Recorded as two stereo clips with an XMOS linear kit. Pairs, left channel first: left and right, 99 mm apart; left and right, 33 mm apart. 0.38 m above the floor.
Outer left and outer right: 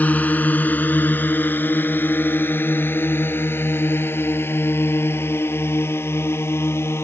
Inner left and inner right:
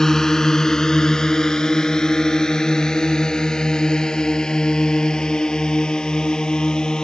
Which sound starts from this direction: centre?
A drone, at 0.0 s.